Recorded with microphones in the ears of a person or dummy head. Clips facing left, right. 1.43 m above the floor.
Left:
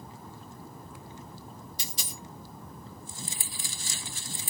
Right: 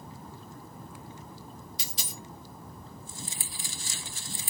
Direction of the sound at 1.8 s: 65° right (ahead or behind).